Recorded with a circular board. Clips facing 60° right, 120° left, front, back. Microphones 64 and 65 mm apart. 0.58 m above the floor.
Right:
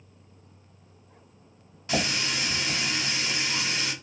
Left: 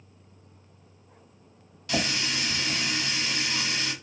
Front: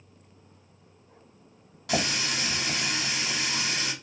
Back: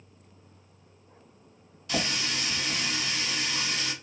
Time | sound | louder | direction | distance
1.9 | a running tap | right 1 dB, front 2 dB | 5° left | 1.1 m